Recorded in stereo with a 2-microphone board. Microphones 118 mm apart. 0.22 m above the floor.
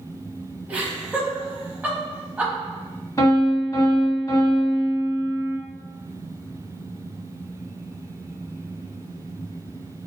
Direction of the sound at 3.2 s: 30° left (ahead or behind).